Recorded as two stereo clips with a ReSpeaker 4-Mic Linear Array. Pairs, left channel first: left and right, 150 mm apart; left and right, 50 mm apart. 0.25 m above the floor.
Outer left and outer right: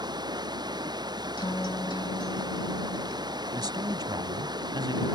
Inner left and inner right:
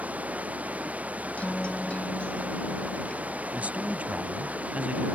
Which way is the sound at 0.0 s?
30° right (ahead or behind).